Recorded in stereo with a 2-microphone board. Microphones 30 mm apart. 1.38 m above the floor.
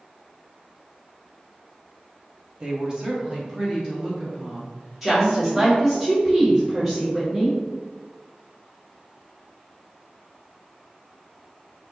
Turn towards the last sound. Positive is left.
turn(degrees=-5)  # may be behind; listen again after turning